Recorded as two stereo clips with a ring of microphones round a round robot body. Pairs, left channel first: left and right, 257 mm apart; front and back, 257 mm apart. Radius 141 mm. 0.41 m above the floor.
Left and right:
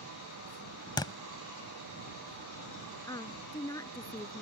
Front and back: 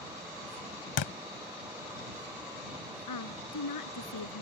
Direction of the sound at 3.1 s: 15° left.